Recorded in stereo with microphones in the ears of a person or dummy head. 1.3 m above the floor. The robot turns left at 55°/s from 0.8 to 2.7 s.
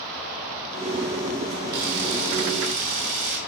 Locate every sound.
1.7 s a camera shutter: 55° right, 3 m; by 3.4 s 110° right, 3 m